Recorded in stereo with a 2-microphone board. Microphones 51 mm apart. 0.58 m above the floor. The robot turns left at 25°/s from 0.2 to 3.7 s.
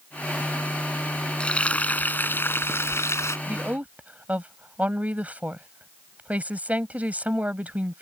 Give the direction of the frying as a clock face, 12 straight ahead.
7 o'clock.